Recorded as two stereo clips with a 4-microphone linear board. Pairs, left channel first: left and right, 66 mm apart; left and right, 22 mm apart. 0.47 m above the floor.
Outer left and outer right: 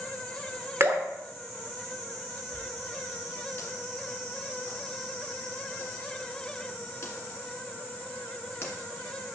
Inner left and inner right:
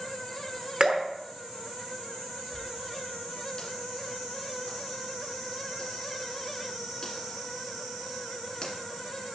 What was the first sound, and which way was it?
Dripping, 40° right (ahead or behind).